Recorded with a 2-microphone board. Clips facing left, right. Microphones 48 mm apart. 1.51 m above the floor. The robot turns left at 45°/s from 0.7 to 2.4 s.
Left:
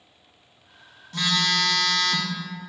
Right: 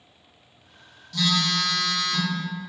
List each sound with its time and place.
1.1 s a phone buzzing: 150° left, 0.5 m; by 2.4 s 95° left, 0.5 m